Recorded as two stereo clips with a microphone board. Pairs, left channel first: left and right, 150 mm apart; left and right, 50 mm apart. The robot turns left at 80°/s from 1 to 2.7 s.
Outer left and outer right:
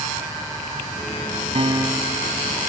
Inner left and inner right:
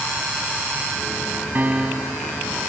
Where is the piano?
135° right; by 2.4 s 160° left.